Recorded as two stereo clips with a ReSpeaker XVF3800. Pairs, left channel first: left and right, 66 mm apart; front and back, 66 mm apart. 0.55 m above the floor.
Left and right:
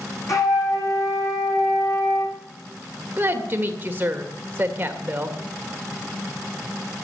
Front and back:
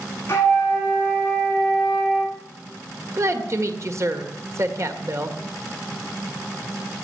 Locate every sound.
0.3 s a flute: 55° left, 5 m
3.2 s a woman speaking: 145° right, 1.8 m